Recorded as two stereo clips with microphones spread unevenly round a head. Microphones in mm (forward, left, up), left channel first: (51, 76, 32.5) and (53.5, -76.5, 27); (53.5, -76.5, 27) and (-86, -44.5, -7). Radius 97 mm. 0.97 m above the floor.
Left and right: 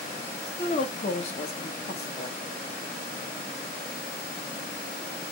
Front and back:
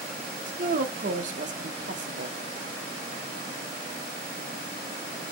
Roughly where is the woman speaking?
Behind left.